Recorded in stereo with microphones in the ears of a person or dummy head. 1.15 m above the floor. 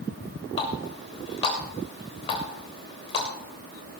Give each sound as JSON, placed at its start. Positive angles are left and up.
{"t": 0.6, "sound": "a running tap", "side_deg": 35, "distance_m": 3.0}